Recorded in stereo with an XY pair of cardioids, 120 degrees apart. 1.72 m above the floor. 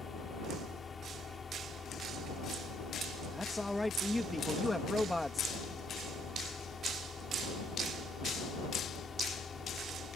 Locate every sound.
0.0 s a fan: 30° left
3.3 s a man speaking: 10° left